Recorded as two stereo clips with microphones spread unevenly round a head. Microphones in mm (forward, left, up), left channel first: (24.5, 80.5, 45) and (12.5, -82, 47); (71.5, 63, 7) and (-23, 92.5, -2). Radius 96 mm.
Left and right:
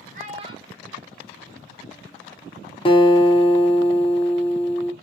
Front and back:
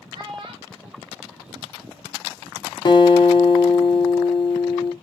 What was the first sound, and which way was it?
A child speaking, 140° right.